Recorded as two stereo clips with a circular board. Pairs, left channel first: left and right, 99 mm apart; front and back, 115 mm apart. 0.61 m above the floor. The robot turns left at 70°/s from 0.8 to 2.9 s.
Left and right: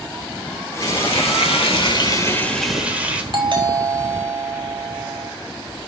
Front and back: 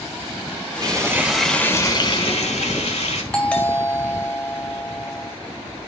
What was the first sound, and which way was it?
Frying, 130° left.